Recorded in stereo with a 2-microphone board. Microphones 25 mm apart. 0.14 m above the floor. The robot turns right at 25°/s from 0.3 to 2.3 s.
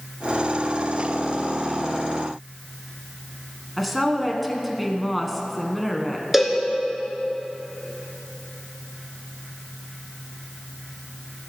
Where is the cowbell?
5° right (ahead or behind), 1.5 m.